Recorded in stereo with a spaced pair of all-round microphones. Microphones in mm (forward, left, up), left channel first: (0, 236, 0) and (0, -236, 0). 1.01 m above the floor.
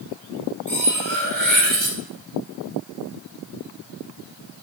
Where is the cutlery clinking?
70° right (ahead or behind), 2.0 m.